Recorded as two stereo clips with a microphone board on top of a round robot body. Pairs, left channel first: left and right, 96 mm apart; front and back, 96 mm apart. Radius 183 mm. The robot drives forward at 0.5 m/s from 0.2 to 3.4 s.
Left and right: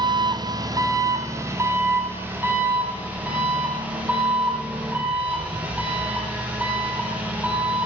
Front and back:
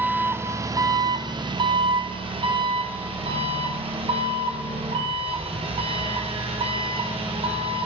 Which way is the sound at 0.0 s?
115° right.